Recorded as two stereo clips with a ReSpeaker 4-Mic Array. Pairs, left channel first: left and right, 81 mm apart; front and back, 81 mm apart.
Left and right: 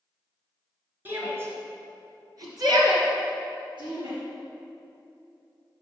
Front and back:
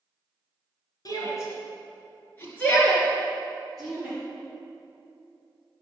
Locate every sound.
1.1 s a shout: 30° right, 2.5 m; by 4.2 s 95° right, 4 m